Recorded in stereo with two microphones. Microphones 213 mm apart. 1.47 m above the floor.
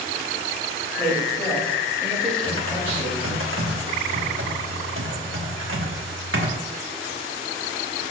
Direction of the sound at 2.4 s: 65° right (ahead or behind).